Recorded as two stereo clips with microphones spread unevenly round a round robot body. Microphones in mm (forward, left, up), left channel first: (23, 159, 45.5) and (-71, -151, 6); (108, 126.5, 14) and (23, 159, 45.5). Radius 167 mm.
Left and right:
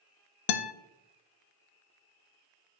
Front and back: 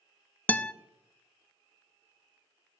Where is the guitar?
55° left, 0.5 m.